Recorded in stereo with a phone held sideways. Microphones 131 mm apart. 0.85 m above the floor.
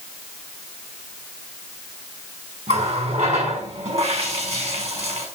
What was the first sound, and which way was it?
A running tap, 55° right (ahead or behind).